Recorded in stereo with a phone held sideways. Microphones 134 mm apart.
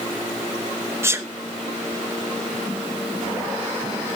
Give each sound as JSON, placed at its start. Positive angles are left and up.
{"t": 1.0, "sound": "a sneeze", "side_deg": -20, "distance_m": 0.7}